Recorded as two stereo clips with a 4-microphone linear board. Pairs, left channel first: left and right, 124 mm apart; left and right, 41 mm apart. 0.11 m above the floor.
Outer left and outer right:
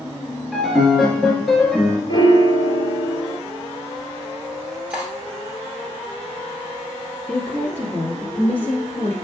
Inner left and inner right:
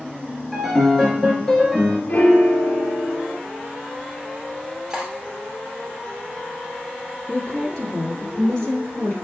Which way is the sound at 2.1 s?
40° left (ahead or behind).